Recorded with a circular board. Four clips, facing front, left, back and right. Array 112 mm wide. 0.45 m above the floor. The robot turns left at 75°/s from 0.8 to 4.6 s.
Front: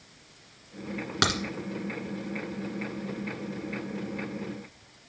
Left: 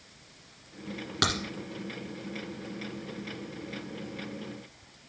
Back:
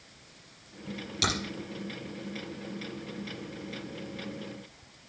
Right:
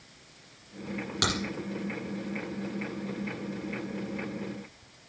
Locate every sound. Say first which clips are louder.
1.2 s a crack: left 1 dB, front 4 dB; 15° left, 1.8 m; by 1.4 s straight ahead, 1.8 m